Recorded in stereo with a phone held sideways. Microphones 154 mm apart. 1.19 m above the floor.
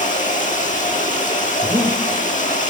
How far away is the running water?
About 7 m.